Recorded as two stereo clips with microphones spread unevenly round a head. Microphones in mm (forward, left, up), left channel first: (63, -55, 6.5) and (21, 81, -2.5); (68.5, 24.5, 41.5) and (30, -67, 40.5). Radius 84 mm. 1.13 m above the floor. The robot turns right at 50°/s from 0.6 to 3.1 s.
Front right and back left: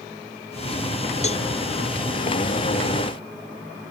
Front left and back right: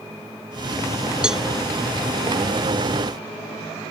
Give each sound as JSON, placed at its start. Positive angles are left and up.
{"t": 1.2, "sound": "a cowbell", "azimuth_deg": -30}